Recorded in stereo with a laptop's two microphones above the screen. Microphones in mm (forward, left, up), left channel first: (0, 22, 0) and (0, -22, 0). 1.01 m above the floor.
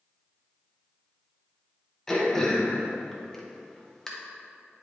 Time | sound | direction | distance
2.1 | throat clearing | 15° left (ahead or behind) | 0.8 m